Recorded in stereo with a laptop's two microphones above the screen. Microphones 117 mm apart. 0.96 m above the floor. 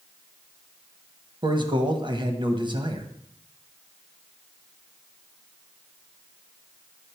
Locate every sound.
1.4 s a man speaking: 40° right (ahead or behind), 0.9 m